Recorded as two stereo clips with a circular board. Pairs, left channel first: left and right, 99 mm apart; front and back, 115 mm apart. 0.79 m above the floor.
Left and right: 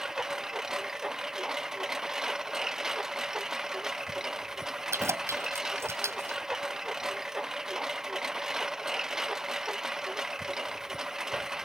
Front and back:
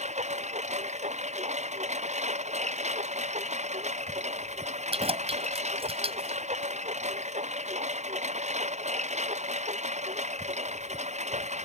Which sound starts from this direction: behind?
A lawn mower, at 0.0 s.